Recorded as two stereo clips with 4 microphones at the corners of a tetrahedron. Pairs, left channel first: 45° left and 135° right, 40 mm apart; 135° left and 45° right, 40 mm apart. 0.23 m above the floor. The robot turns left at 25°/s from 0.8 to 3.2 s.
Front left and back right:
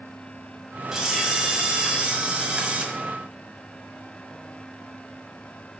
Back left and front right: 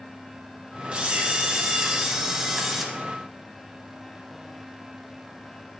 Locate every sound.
0.9 s a camera shutter: 80° right, 1.5 m; by 2.9 s 125° right, 1.5 m